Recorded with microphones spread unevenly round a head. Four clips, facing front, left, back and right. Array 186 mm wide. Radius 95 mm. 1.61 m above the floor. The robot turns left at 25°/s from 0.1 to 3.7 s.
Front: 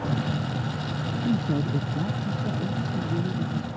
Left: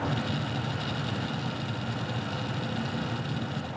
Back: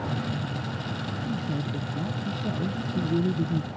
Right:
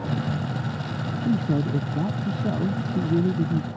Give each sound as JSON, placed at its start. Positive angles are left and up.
{"t": 1.2, "sound": "a man speaking", "azimuth_deg": -60}